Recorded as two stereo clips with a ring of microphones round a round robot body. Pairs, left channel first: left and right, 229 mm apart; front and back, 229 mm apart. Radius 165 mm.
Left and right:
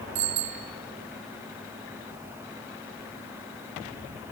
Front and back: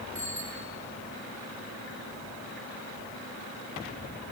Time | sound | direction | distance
0.1 | a bicycle bell | 85° right | 4.5 m